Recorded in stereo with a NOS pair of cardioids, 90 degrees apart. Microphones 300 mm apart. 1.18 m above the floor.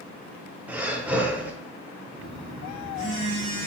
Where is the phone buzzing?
45° right, 1.5 m.